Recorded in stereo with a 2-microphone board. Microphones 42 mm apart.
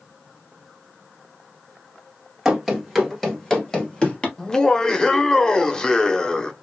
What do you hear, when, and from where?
2.5 s running footsteps: 10° right (ahead or behind), 2.0 m; by 4.3 s 25° left (ahead or behind), 2 m
4.4 s laughter: 20° left (ahead or behind), 0.9 m